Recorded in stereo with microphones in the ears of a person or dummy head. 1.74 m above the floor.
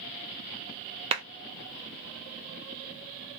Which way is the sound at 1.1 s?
25° right (ahead or behind).